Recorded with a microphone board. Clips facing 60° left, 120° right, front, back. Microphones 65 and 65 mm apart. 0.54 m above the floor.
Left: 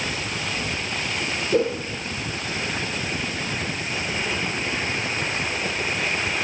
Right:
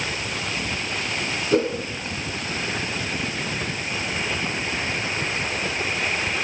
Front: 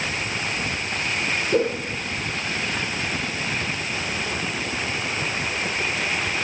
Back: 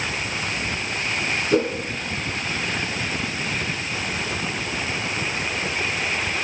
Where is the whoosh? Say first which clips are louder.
Even, back 1 dB; 150° right, 3 m.